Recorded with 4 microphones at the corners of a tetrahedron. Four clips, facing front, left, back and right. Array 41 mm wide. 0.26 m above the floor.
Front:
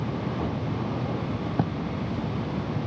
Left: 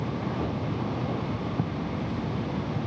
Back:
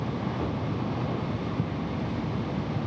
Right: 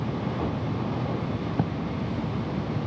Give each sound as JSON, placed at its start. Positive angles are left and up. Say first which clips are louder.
{"t": 1.6, "sound": "writing", "louder": "right 5 dB, front 9 dB", "azimuth_deg": -25}